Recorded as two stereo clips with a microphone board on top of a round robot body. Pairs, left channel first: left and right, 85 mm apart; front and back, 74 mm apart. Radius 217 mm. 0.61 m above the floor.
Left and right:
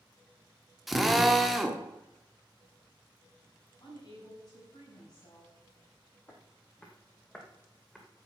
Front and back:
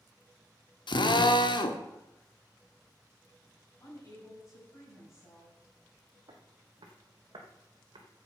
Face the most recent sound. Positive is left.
turn(degrees=175)